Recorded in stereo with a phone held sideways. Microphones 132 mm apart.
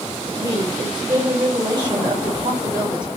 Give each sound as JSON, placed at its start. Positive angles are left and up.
{"t": 0.3, "sound": "a woman speaking", "side_deg": -30, "distance_m": 3.0}